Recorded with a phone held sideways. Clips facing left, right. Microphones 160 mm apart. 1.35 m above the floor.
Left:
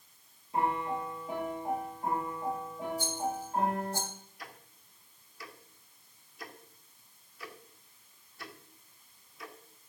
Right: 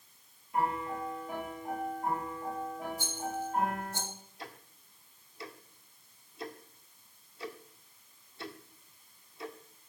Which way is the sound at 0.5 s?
30° left (ahead or behind).